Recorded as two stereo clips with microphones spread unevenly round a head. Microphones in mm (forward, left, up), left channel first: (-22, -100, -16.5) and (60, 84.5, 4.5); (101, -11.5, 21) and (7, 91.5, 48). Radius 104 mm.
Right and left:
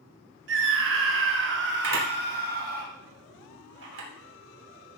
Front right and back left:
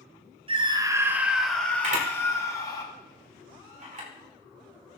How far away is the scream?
About 1.4 m.